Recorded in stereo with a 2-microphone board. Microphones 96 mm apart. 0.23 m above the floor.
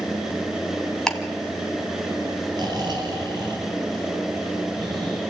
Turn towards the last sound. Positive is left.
turn(degrees=-45)  # may be behind; listen again after turning